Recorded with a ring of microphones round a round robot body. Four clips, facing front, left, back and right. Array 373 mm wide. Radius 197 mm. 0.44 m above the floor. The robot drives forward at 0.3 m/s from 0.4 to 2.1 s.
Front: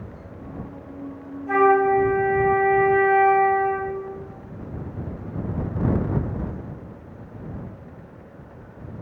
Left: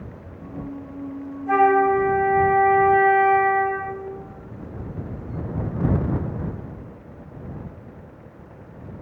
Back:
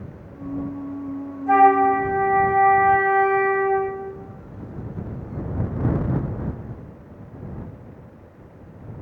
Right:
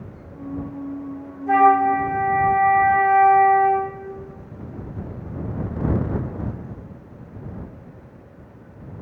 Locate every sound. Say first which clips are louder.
1.5 s a flute: right 2 dB, back 3 dB; 165° right, 1.9 m